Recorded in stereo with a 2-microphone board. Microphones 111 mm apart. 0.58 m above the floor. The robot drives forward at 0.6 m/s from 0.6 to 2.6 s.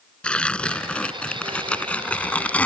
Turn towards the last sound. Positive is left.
turn(degrees=15)  # may be behind; listen again after turning